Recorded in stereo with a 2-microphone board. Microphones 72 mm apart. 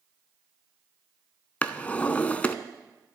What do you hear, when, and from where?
1.6 s a drawer: 20° left (ahead or behind), 0.5 m